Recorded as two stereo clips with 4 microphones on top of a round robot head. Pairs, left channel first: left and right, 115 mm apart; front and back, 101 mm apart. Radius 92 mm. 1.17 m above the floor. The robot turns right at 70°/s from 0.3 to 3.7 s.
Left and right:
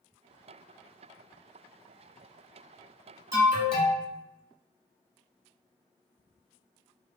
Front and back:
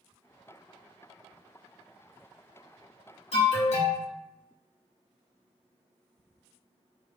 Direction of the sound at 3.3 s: 25° right.